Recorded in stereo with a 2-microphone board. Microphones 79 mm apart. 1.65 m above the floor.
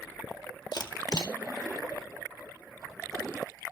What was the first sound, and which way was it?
A camera shutter, 65° left (ahead or behind).